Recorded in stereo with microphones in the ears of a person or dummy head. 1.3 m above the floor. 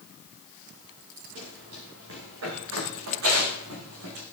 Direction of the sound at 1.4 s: 70° right (ahead or behind).